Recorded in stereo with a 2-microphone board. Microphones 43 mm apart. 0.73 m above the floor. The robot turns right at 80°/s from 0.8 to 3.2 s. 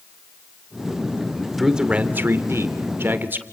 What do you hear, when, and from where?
1.6 s a man speaking: 175° right, 2.5 m; by 3.4 s 45° right, 2.5 m